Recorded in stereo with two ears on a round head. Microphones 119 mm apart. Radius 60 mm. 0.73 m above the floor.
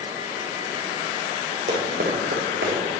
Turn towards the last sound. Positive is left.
turn(degrees=-75)  # may be behind; listen again after turning